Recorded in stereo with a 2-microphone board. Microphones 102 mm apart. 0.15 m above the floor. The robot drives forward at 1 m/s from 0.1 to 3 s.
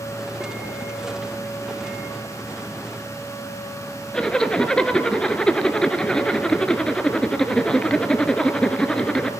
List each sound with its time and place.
4.1 s a zipper: 10° left (ahead or behind), 0.5 m